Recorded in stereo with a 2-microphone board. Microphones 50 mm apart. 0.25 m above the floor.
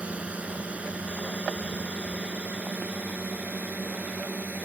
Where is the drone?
25° right (ahead or behind); by 4.7 s 30° right (ahead or behind).